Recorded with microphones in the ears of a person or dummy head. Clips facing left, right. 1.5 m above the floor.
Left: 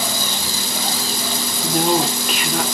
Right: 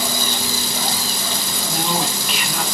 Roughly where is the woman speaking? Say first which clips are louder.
Left 6 dB; left.